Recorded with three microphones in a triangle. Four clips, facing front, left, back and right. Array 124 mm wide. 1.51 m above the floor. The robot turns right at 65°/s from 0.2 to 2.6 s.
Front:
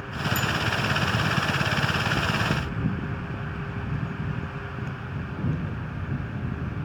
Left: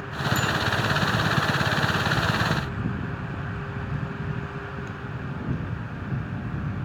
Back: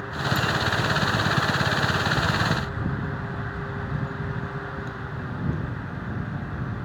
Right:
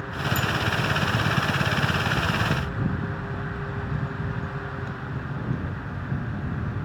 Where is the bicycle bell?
110° left; by 0.5 s 120° left.